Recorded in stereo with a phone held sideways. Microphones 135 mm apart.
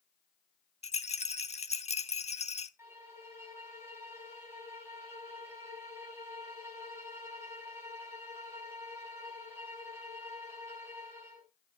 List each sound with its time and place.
0.8 s a rattle: 50° left (ahead or behind), 0.9 m
2.8 s a violin: 20° right (ahead or behind), 5.5 m